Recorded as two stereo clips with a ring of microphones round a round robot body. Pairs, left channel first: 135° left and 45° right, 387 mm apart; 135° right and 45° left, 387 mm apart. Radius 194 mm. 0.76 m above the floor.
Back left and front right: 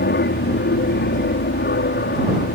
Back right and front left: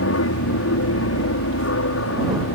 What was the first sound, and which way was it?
An aircraft, 170° right.